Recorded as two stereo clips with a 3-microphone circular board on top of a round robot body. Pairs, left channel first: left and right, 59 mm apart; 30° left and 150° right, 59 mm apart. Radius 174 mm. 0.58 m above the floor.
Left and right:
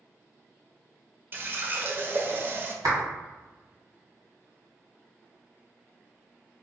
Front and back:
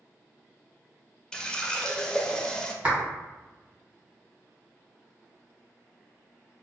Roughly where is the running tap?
Ahead right.